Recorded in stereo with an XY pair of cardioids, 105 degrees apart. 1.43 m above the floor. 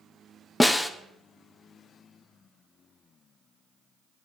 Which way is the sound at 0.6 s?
10° left.